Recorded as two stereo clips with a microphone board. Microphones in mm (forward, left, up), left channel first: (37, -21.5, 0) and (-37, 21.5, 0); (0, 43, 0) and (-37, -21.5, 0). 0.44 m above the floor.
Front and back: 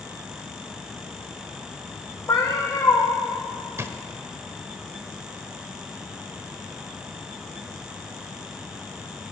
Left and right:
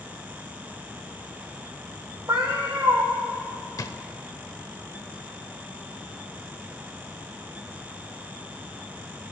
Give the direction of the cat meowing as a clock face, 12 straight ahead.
3 o'clock.